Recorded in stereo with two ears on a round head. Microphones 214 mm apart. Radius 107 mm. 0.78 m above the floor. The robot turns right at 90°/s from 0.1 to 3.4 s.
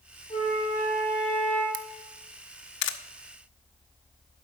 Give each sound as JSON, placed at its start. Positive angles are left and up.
{"t": 0.3, "sound": "a flute", "azimuth_deg": 15, "distance_m": 3.5}
{"t": 1.7, "sound": "a camera shutter", "side_deg": -50, "distance_m": 0.7}